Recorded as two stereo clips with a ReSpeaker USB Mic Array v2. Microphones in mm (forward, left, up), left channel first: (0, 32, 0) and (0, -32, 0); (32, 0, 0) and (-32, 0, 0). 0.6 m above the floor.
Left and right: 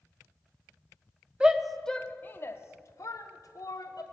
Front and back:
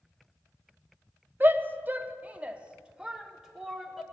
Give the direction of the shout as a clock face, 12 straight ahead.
5 o'clock.